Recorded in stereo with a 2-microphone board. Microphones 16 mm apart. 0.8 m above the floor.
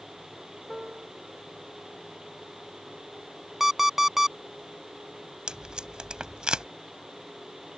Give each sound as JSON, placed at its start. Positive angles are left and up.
{"t": 0.7, "sound": "a piano", "side_deg": -65}
{"t": 3.6, "sound": "an alarm clock", "side_deg": -25}
{"t": 5.5, "sound": "tape being pulled", "side_deg": -65}